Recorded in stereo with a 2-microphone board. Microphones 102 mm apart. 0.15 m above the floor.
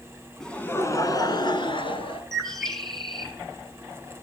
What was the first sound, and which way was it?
Laughter, 5° left (ahead or behind).